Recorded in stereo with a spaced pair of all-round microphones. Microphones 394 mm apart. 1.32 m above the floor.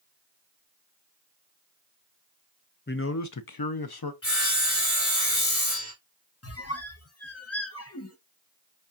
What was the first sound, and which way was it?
A man speaking, 30° left (ahead or behind).